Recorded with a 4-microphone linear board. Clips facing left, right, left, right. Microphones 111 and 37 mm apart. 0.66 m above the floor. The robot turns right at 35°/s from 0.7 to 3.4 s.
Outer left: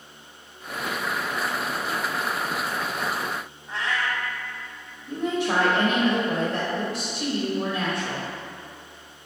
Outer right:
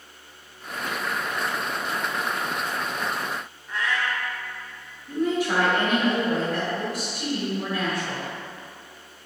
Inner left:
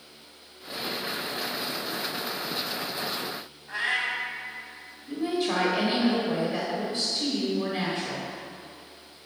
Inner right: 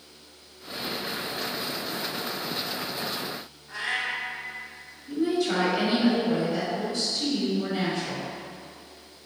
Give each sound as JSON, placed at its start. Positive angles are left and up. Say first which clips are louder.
{"t": 3.7, "sound": "a cat meowing", "louder": "even, inner left 2 dB", "side_deg": 25, "distance_m": 0.7}
{"t": 5.1, "sound": "a woman speaking", "louder": "outer right 1 dB, inner right 2 dB", "side_deg": 25, "distance_m": 1.0}